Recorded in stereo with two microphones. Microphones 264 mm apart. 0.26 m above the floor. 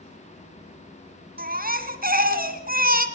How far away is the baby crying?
About 2.5 m.